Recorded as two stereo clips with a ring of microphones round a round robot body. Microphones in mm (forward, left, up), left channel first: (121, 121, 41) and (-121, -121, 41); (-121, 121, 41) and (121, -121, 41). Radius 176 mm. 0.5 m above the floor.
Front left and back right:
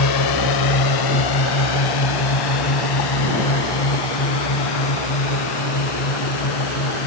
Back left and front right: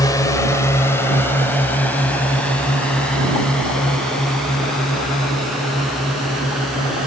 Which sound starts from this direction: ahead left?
A drone, at 0.0 s.